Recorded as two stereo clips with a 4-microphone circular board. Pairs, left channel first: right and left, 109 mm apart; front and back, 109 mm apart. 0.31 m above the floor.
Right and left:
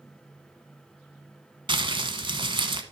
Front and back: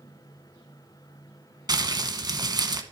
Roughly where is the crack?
I don't hear a crack.